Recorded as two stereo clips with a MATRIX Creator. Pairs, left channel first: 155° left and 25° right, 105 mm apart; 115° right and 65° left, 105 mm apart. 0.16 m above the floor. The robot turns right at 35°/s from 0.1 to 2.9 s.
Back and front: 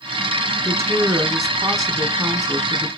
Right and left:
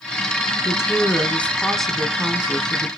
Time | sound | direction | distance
0.6 | a woman speaking | 70° right | 2.0 m